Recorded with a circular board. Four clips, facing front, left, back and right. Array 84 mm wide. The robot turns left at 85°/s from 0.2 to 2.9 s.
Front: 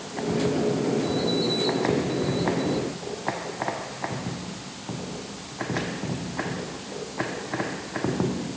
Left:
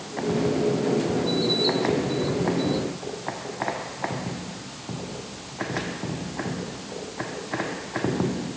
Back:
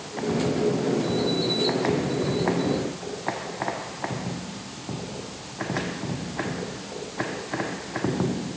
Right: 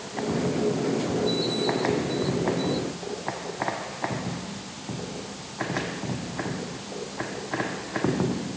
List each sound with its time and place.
Only background noise.